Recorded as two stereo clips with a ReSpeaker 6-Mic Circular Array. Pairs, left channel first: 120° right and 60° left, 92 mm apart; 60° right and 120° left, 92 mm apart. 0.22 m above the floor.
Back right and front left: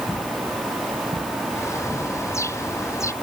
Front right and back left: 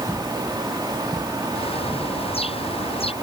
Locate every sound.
1.5 s a bird: 60° right